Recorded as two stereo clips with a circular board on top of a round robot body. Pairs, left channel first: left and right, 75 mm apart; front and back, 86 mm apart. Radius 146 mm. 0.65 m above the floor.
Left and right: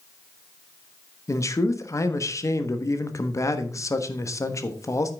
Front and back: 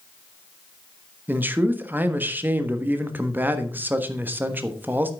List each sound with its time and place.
1.3 s a man speaking: 120° left, 1.6 m